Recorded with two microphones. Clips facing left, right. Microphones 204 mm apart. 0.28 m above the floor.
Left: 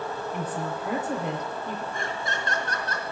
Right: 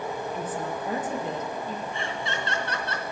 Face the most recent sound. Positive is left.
turn(degrees=45)  # may be behind; listen again after turning